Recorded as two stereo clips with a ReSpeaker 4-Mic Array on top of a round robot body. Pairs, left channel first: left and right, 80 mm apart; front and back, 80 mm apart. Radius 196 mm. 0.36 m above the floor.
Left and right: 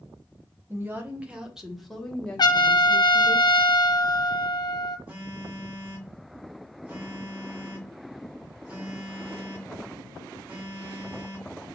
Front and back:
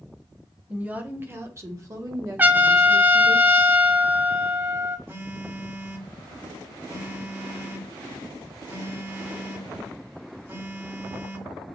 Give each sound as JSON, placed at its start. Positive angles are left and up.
{"t": 0.7, "sound": "a woman speaking", "azimuth_deg": -115, "distance_m": 1.2}
{"t": 2.4, "sound": "a trumpet", "azimuth_deg": 115, "distance_m": 0.6}
{"t": 5.1, "sound": "a phone buzzing", "azimuth_deg": -150, "distance_m": 1.6}